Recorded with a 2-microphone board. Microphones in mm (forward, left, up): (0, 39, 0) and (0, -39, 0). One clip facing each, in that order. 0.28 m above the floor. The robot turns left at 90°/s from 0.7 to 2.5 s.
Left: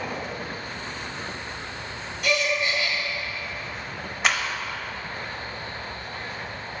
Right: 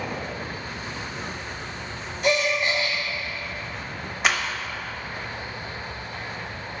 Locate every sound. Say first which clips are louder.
2.2 s a gasp: right 2 dB; 30° right (ahead or behind), 1.5 m; by 3.0 s 25° right (ahead or behind), 1.5 m
4.2 s a clap: right 1 dB; centre (ahead or behind), 0.7 m